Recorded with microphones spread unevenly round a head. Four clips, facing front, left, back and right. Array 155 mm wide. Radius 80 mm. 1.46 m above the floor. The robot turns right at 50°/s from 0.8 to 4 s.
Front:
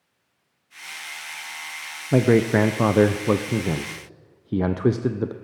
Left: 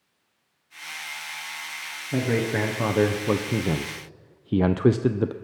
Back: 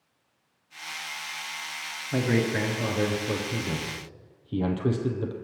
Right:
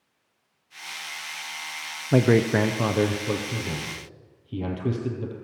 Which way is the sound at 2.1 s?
35° right.